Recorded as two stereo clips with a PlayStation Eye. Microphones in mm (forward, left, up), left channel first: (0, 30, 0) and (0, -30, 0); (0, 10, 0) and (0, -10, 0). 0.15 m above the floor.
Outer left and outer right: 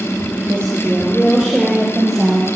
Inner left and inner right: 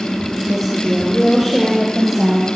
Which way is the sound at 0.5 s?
15° left (ahead or behind).